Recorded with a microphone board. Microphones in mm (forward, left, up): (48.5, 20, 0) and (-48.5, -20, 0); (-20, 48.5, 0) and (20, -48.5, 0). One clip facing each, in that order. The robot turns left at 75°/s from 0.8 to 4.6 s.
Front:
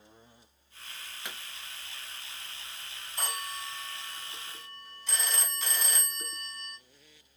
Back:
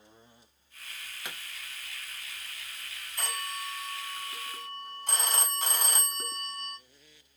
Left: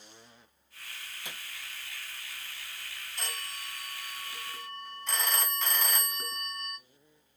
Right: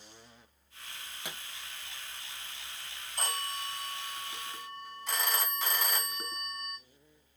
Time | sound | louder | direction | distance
1.2 | a pop | back 1 dB, right 3 dB | 70° right | 1.2 m
3.2 | a phone ringing | back 1 dB, right 6 dB | 40° right | 0.9 m